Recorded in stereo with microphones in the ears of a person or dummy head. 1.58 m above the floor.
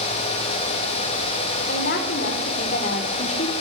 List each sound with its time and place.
1.7 s a woman speaking: 55° left (ahead or behind), 5 m; by 3.5 s 40° left (ahead or behind), 3.5 m